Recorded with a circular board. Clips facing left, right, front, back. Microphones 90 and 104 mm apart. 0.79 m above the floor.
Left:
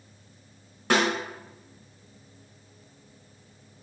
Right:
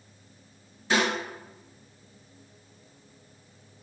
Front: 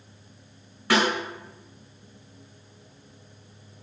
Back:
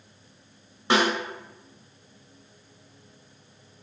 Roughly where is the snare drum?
Behind left.